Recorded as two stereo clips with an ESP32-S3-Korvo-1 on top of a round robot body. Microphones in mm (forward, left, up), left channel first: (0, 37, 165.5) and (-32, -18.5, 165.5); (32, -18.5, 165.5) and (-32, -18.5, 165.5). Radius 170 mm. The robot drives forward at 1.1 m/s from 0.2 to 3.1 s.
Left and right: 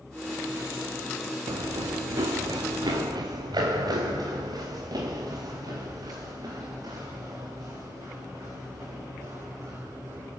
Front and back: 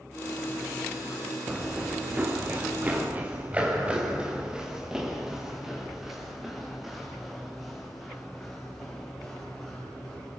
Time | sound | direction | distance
1.5 | running footsteps | 110° right | 2.5 m